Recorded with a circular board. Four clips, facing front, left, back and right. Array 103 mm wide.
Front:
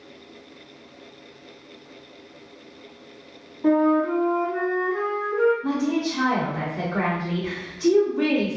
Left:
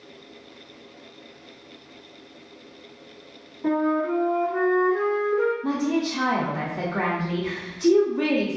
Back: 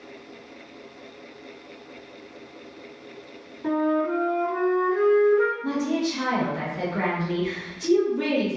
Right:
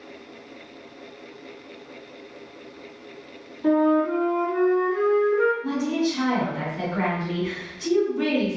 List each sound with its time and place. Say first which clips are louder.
3.6 s a flute: right 3 dB, front 4 dB; 20° left, 1.5 m
5.6 s a woman speaking: even, front 1 dB; 55° left, 1.3 m